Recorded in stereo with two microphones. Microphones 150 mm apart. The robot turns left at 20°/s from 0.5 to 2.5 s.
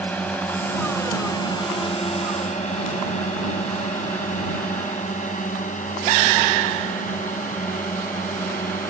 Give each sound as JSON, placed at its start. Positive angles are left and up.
{"t": 0.0, "sound": "a drone", "side_deg": 10}